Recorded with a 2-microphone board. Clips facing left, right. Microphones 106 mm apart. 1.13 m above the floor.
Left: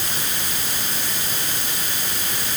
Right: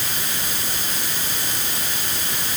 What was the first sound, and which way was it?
Only background noise.